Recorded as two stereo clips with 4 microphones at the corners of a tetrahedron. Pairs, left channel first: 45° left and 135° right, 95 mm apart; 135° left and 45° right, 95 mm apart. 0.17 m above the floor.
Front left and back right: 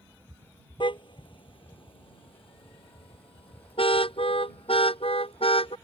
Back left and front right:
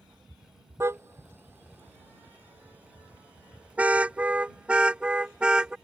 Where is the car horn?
15° left; by 5.8 s 35° left.